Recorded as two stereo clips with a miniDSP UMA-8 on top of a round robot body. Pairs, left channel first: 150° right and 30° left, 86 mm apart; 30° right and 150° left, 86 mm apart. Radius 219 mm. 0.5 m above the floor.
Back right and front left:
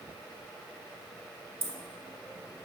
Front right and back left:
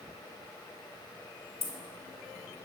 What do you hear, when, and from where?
1.6 s keys jangling: 30° right, 1.3 m